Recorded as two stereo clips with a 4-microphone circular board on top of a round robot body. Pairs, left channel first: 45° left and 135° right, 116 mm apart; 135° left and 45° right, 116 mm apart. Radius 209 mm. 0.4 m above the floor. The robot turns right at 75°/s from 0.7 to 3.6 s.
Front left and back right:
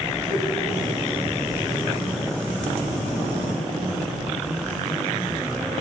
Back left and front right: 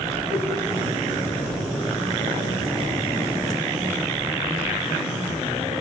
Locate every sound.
0.3 s a whoosh: 90° right, 2.5 m